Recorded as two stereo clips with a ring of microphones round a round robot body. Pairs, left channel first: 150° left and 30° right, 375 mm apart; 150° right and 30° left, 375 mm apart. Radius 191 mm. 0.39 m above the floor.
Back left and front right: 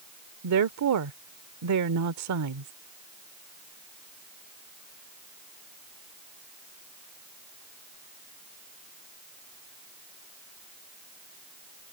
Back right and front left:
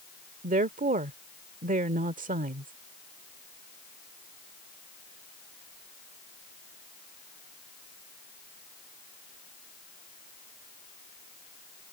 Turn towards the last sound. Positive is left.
turn(degrees=-30)